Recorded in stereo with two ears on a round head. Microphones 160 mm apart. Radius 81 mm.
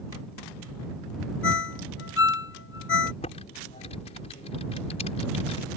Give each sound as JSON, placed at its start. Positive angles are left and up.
{"t": 1.4, "sound": "a ringtone", "side_deg": 75}
{"t": 3.2, "sound": "typing on a keyboard", "side_deg": 35}